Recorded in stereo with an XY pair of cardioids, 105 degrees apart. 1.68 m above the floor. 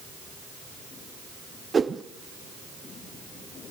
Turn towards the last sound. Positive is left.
turn(degrees=-30)